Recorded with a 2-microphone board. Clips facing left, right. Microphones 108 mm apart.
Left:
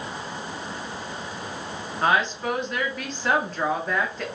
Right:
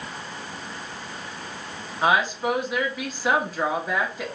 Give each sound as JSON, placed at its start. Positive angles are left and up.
{"t": 2.0, "sound": "a woman speaking", "side_deg": -5, "distance_m": 0.9}